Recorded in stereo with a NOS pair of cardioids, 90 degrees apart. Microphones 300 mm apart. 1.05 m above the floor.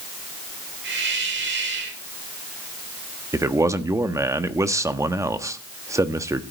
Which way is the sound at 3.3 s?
10° right.